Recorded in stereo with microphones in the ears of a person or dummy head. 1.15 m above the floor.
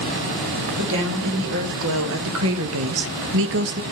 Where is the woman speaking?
70° right (ahead or behind), 2.5 m; by 3.8 s 45° right (ahead or behind), 0.8 m.